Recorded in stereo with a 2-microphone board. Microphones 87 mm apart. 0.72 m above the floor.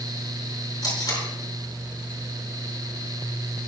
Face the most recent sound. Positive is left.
turn(degrees=55)  # may be behind; listen again after turning